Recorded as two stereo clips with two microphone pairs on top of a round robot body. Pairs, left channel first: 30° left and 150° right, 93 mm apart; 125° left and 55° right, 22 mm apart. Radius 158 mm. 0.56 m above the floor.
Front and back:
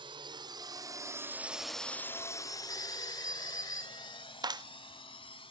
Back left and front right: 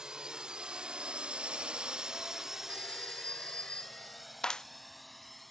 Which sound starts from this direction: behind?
A clap, at 4.4 s.